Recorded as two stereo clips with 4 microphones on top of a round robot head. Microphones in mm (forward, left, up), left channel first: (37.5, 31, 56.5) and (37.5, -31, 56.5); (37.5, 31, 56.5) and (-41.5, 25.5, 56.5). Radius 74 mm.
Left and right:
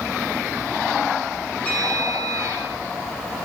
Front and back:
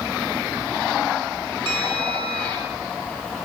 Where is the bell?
165° left, 7 m.